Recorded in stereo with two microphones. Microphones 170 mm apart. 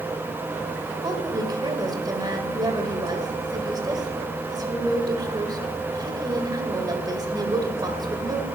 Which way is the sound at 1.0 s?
25° right (ahead or behind).